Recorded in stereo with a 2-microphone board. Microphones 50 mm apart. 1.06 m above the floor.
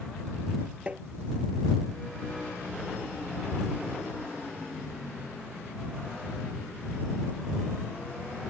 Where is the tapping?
25° right (ahead or behind).